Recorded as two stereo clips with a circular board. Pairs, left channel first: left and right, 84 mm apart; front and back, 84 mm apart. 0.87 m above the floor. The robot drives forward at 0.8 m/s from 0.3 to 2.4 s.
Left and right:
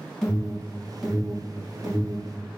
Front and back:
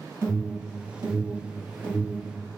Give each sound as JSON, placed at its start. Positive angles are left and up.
{"t": 0.2, "sound": "an alarm", "azimuth_deg": 175, "distance_m": 1.7}